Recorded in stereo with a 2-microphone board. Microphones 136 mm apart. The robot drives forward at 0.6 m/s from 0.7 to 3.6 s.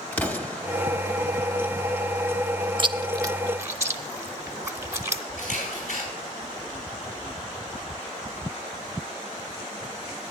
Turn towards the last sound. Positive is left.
turn(degrees=65)  # may be behind; listen again after turning